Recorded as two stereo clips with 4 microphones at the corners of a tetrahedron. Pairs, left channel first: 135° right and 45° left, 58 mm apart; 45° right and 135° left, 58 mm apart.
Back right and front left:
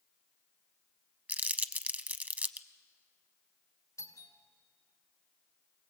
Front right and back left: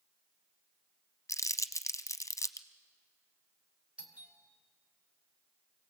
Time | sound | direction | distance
1.3 | crumpling | 15° right | 0.7 m
4.0 | a doorbell | 155° right | 2.0 m